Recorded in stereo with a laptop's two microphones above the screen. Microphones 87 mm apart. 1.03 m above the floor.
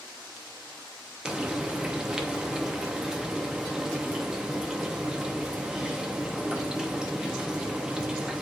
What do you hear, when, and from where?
1.2 s frying: 10° right (ahead or behind), 0.8 m